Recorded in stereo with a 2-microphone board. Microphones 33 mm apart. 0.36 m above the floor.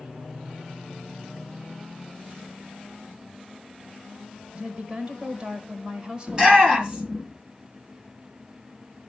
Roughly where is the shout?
Right.